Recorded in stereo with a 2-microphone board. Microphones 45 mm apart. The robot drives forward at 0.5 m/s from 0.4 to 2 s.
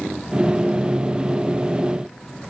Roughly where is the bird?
No bird in this recording.